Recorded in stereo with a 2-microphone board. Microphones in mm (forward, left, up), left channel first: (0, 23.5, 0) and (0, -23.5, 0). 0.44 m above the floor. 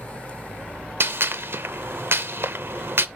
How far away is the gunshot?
About 0.6 m.